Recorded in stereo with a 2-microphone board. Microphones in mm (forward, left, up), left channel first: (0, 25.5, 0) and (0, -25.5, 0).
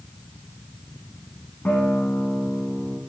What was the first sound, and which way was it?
A guitar, 40° left (ahead or behind).